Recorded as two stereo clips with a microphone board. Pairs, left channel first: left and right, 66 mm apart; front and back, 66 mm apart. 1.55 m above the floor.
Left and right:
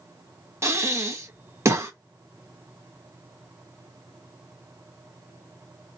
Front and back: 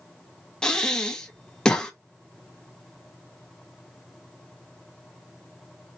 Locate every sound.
0.6 s breathing: 75° right, 1.0 m